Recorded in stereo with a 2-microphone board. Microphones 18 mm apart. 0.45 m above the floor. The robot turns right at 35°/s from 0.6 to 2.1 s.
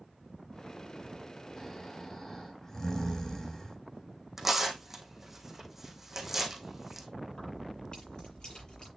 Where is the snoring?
5° left (ahead or behind), 3 m; by 3.8 s 25° left (ahead or behind), 3 m.